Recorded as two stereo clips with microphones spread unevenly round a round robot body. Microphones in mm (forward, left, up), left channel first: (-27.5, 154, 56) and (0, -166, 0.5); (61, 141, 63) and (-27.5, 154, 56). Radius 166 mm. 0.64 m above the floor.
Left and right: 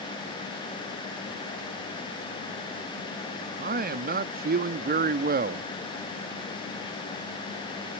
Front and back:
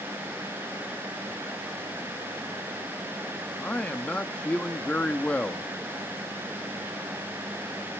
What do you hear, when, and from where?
3.6 s a man speaking: 80° right, 0.7 m